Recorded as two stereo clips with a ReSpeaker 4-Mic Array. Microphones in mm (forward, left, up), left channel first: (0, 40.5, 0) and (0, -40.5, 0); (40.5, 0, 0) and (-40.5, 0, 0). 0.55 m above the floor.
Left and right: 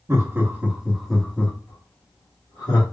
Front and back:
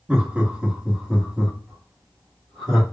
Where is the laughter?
115° right, 1.1 m; by 2.8 s 90° left, 1.4 m.